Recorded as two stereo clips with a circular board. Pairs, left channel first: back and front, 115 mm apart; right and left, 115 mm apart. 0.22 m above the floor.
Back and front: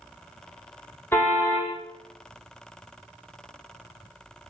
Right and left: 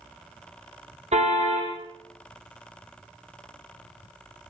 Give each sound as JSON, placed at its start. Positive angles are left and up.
{"t": 1.1, "sound": "a car horn", "azimuth_deg": 110, "distance_m": 6.0}